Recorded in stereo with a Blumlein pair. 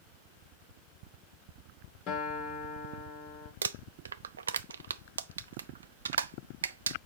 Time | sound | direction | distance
2.1 | a guitar | 35° left | 3.5 m
3.6 | crumpling | 70° right | 0.5 m